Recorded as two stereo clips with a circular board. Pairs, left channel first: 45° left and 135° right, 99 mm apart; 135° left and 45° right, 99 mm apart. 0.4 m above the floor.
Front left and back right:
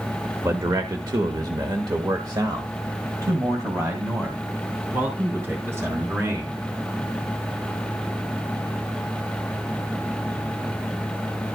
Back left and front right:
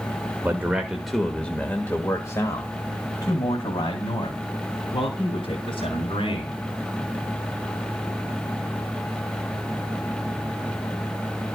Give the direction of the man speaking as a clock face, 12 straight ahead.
3 o'clock.